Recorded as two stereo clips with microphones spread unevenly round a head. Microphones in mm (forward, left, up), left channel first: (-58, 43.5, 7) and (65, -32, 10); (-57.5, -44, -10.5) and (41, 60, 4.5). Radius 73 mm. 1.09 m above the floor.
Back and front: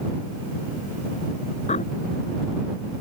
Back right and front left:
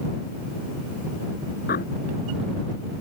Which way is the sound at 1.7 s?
160° right.